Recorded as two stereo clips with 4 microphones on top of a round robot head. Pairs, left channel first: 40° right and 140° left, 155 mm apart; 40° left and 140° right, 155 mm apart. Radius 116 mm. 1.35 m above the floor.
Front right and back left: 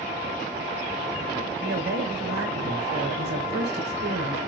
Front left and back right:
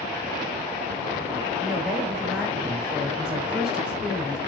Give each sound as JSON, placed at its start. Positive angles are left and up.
{"t": 1.6, "sound": "a woman speaking", "azimuth_deg": 135, "distance_m": 4.0}